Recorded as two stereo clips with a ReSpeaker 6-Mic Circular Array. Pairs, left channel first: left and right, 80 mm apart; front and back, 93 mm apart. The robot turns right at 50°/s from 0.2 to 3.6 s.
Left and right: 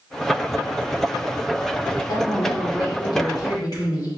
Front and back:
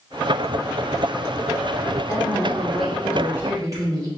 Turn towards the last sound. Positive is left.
turn(degrees=125)